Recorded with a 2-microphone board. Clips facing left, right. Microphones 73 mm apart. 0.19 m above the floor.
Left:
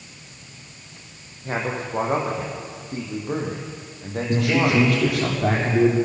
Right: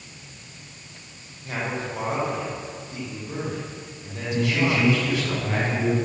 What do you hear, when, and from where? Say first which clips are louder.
1.4 s a man speaking: left 3 dB; 35° left (ahead or behind), 7 m; by 5.2 s 50° left (ahead or behind), 7 m
4.3 s a man speaking: left 3 dB; 75° left (ahead or behind), 7.5 m